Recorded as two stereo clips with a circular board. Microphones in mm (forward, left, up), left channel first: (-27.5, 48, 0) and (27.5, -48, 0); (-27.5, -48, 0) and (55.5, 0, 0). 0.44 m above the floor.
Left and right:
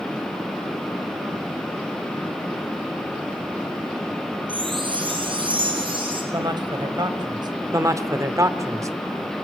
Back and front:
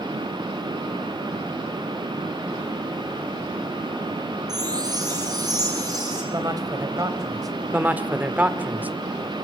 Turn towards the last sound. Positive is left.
turn(degrees=-30)